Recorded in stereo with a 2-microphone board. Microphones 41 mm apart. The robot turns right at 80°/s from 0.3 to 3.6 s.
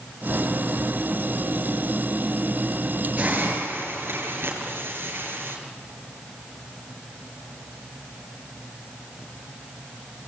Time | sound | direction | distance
3.2 | a hiss | 145° right | 6.5 m